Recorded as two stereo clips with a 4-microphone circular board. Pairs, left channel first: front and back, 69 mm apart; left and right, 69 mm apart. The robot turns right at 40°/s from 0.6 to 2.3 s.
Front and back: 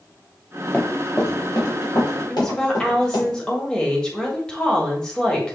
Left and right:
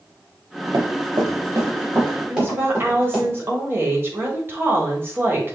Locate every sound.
0.7 s running footsteps: 65° right, 1.0 m; by 3.3 s 20° right, 4.5 m
2.3 s a woman speaking: 70° right, 1.3 m